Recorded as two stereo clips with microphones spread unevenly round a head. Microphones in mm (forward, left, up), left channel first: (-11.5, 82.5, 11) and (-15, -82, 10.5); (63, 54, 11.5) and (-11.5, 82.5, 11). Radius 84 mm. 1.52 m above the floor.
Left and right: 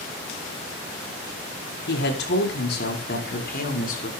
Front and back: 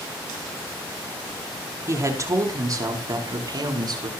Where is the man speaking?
110° left, 4.5 m; by 4.1 s 130° left, 5.5 m.